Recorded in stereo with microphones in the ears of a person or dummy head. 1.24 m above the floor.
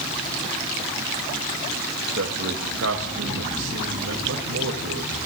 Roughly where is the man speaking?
Right.